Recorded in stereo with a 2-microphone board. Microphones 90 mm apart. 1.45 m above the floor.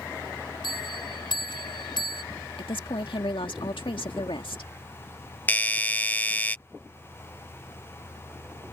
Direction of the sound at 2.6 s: 80° left.